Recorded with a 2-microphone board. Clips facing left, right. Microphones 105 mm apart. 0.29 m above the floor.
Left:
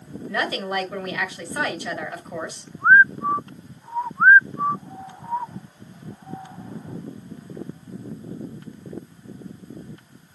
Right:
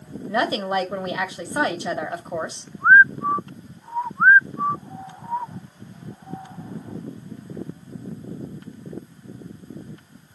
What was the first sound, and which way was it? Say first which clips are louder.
A woman speaking: right 4 dB; 25° right (ahead or behind).